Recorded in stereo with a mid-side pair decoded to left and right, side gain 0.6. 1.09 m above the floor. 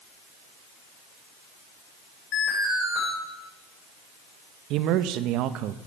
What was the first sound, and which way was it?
An alarm, 65° left.